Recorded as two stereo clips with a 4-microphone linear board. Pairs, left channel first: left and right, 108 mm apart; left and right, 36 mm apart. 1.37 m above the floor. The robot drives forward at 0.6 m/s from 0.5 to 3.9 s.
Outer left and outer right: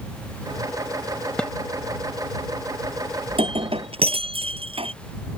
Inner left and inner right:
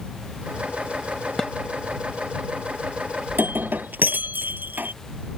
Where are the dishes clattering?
10° left (ahead or behind).